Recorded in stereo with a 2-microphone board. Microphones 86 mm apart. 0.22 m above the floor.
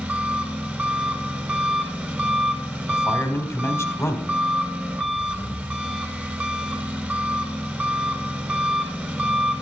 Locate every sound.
0.0 s an engine running: 20° right (ahead or behind), 1.3 m
2.9 s a man speaking: 30° left (ahead or behind), 1.3 m